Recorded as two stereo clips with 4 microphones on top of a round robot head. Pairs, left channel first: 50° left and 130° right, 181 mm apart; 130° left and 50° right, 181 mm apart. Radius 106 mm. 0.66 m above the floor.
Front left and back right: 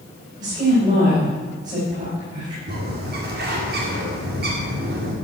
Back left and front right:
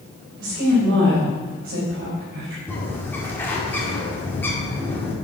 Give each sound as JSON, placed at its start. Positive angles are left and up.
{"t": 0.4, "sound": "a woman speaking", "azimuth_deg": -80, "distance_m": 4.5}
{"t": 2.7, "sound": "a bird", "azimuth_deg": -150, "distance_m": 2.5}